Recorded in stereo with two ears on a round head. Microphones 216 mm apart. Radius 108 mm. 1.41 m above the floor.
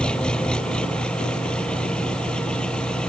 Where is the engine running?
5° left (ahead or behind).